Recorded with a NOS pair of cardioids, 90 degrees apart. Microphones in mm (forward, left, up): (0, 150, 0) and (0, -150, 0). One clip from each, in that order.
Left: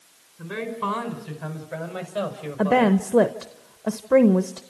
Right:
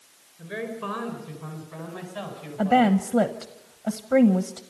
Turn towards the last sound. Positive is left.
turn(degrees=20)